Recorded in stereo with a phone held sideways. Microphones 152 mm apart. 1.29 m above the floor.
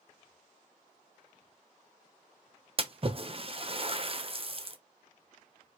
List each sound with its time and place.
2.8 s a splash: 40° right (ahead or behind), 0.8 m